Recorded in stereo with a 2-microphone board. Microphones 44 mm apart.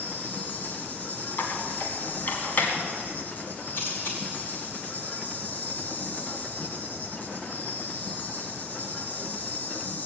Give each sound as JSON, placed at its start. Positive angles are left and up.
{"t": 0.0, "sound": "an insect", "side_deg": 35, "distance_m": 2.0}
{"t": 1.4, "sound": "a squeak", "side_deg": 40, "distance_m": 2.0}
{"t": 3.7, "sound": "a camera shutter", "side_deg": 50, "distance_m": 5.5}